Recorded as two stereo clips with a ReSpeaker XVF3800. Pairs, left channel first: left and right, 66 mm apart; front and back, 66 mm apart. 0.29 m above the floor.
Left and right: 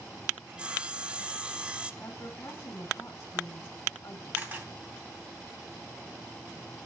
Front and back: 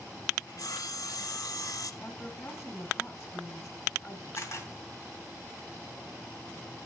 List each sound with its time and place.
0.5 s sawing: 20° right, 0.6 m
2.0 s a woman speaking: 45° left, 1.7 m
4.3 s a camera shutter: 30° right, 2.5 m